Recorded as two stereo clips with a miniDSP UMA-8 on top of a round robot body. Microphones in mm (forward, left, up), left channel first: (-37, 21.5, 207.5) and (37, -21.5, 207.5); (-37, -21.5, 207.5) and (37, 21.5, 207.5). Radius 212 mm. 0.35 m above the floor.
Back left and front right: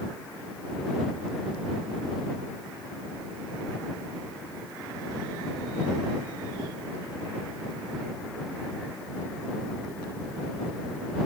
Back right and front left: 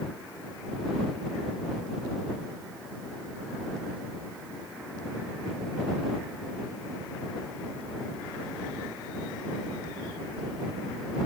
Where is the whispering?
I don't hear whispering.